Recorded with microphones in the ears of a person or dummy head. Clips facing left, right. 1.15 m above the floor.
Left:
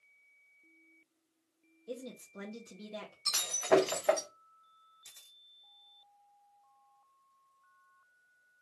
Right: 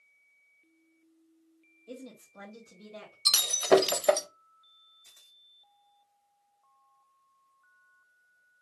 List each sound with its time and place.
1.9 s a woman speaking: 5° left (ahead or behind), 0.7 m; by 3.1 s 60° left (ahead or behind), 0.9 m
3.2 s breaking glass: 55° right (ahead or behind), 0.6 m
5.0 s a camera shutter: 40° left (ahead or behind), 0.9 m